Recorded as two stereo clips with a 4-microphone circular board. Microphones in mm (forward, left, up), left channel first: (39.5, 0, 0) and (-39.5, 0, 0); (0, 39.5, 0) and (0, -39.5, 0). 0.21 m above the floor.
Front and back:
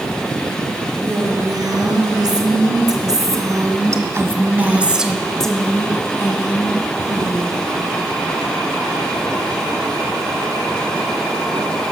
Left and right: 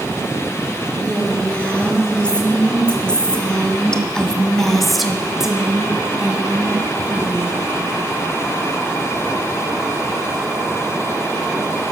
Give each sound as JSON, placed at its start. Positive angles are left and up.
{"t": 1.0, "sound": "a woman speaking", "azimuth_deg": 165, "distance_m": 4.0}